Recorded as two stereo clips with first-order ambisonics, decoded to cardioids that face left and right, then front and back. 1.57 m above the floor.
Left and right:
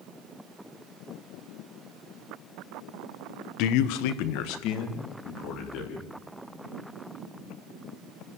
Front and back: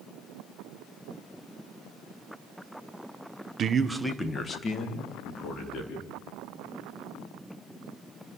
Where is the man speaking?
120° left, 1.0 m; by 6.1 s 50° left, 4 m.